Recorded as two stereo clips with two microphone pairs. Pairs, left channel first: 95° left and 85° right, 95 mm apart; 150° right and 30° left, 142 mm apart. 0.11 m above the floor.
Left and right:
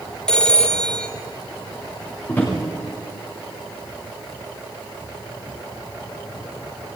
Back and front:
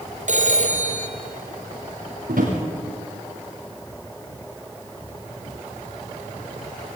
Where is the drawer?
20° left, 7 m.